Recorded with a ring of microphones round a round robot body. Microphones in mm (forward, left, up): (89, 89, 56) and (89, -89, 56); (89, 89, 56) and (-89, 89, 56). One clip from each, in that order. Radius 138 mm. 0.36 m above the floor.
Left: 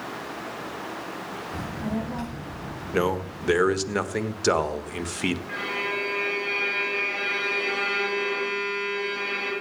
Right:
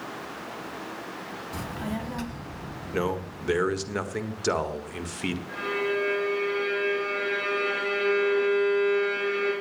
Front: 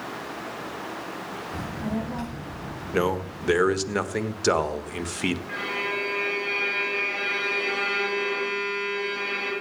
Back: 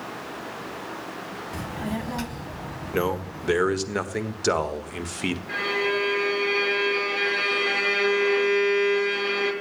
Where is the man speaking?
65° left, 1.4 m.